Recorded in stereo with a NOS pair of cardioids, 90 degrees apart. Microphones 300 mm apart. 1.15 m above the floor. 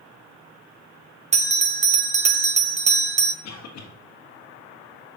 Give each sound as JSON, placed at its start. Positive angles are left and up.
{"t": 1.3, "sound": "a bell", "azimuth_deg": -25, "distance_m": 0.6}
{"t": 3.4, "sound": "a cough", "azimuth_deg": 65, "distance_m": 1.4}